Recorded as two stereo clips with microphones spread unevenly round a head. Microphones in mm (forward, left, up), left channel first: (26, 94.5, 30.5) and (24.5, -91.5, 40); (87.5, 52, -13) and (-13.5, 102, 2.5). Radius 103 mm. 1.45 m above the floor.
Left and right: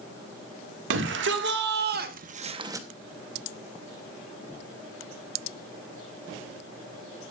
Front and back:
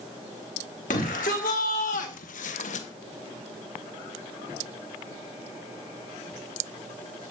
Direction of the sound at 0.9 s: 70° right.